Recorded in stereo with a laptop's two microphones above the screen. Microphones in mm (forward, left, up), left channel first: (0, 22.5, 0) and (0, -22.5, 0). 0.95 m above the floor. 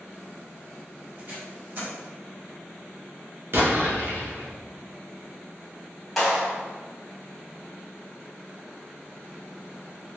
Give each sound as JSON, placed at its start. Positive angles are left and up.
{"t": 1.2, "sound": "tape being pulled", "side_deg": -50, "distance_m": 1.2}
{"t": 3.5, "sound": "an explosion", "side_deg": -50, "distance_m": 0.6}
{"t": 6.2, "sound": "a clap", "side_deg": 0, "distance_m": 1.5}